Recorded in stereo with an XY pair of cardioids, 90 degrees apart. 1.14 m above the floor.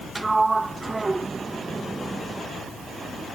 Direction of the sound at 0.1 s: 20° right.